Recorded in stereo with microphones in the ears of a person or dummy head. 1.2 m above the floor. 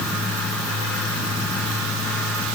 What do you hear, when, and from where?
Only background noise.